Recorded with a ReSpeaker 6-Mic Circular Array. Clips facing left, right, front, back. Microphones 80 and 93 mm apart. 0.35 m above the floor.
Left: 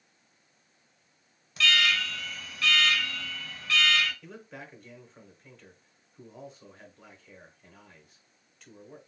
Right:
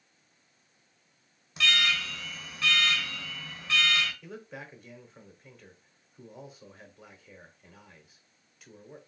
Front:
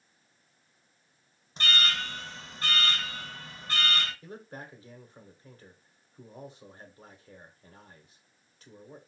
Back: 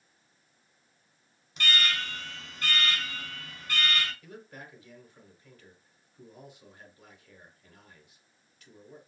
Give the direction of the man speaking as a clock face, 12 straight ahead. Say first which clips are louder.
Right 2 dB, front 3 dB; 12 o'clock.